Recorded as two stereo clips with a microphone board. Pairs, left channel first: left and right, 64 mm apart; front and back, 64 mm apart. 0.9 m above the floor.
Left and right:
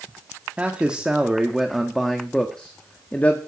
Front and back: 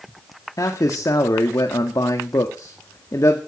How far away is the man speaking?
About 1.9 m.